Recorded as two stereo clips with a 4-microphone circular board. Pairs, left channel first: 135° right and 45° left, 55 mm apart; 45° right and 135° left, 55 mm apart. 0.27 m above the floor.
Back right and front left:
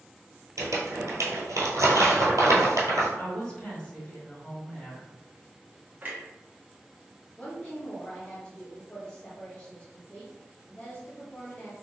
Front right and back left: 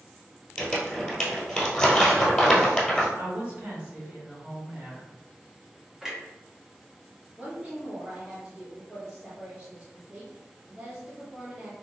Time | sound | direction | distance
0.6 | crumpling | 35° left | 1.3 m
3.2 | a woman speaking | 170° left | 1.6 m
6.0 | a clunk | 65° left | 0.9 m
7.4 | a woman speaking | 175° right | 1.2 m